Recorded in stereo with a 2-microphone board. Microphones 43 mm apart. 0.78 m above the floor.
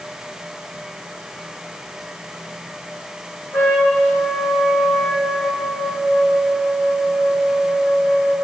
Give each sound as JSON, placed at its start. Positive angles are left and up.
{"t": 3.5, "sound": "a trumpet", "side_deg": 60, "distance_m": 2.0}